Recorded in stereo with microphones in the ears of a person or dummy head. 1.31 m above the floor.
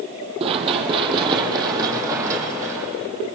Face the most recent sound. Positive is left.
turn(degrees=-15)  # may be behind; listen again after turning